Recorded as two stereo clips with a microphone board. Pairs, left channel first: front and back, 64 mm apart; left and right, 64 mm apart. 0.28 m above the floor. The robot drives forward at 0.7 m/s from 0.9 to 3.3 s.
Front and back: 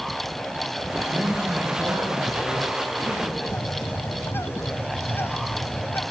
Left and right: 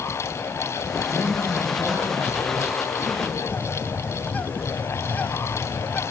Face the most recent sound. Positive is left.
turn(degrees=35)